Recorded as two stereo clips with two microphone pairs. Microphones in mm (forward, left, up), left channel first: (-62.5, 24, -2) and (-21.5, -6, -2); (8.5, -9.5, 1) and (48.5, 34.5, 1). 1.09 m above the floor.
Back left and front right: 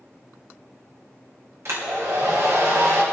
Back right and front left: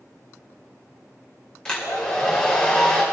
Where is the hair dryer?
55° right, 2.5 m.